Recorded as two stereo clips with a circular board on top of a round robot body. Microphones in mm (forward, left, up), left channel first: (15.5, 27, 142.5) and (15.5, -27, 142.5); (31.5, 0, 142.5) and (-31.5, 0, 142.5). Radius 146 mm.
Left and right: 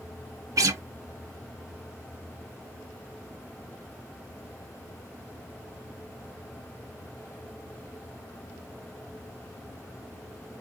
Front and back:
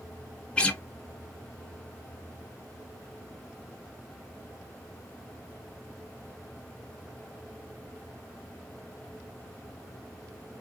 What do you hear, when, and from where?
0.6 s a guitar: 75° right, 0.5 m